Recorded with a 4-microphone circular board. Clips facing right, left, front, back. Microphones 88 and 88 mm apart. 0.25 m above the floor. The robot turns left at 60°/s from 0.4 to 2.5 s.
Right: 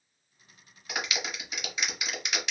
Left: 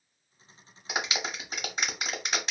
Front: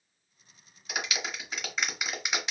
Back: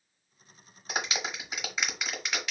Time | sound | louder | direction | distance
0.9 | a clap | left 2 dB, back 2 dB | 150° left | 0.9 m